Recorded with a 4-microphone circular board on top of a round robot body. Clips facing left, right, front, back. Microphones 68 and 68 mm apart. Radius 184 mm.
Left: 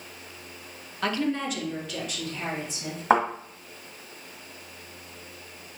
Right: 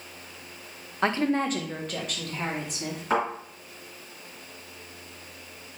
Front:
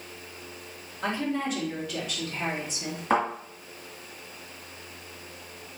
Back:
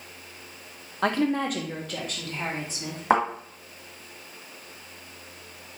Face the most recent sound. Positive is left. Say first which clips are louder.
# left 5 dB, back 3 dB
turn(degrees=140)